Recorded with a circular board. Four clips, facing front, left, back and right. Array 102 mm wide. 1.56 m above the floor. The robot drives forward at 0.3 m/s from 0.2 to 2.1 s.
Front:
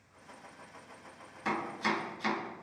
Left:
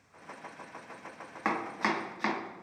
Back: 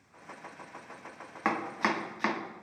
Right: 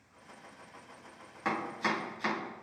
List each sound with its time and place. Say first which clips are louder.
1.4 s chopping: left 2 dB, back 3 dB; 150° left, 1.7 m; by 2.4 s 155° left, 1.8 m